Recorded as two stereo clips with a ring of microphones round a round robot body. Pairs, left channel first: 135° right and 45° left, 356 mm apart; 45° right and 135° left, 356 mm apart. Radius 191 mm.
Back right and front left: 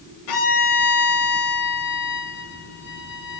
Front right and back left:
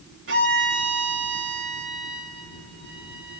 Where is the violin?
165° right, 1.1 m.